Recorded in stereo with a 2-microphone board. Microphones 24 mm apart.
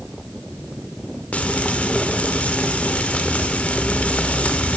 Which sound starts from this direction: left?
Frying, at 1.3 s.